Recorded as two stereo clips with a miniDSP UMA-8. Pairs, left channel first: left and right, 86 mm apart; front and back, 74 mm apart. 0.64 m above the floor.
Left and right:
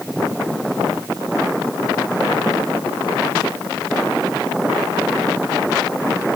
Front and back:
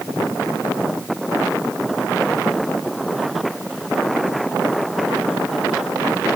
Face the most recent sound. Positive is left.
No sound to turn to.